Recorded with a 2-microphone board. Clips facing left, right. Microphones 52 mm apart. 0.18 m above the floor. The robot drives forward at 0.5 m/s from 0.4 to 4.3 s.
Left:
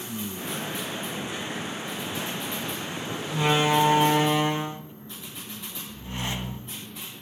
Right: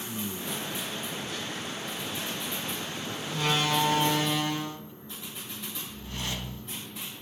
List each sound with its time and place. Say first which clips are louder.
3.3 s a door slam: left 5 dB; 20° left (ahead or behind), 0.9 m; by 6.7 s 25° left (ahead or behind), 0.7 m